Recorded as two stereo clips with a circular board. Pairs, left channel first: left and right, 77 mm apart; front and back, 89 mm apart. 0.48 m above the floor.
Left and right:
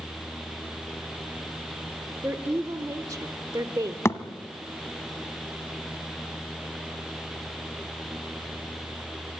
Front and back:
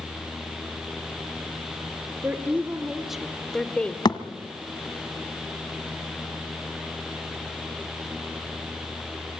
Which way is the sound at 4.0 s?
35° left.